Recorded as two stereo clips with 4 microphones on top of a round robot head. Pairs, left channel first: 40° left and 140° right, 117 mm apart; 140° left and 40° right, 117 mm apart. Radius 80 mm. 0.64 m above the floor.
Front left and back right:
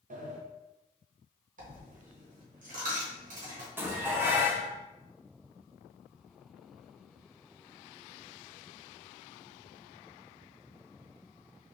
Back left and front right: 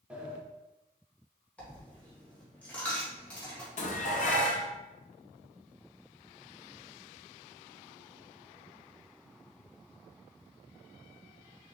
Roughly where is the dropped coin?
Behind right.